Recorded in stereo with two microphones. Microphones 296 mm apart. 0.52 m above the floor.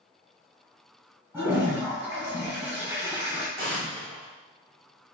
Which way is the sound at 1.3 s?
5° right (ahead or behind).